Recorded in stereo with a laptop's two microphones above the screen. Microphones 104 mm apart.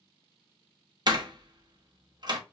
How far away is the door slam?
About 0.6 m.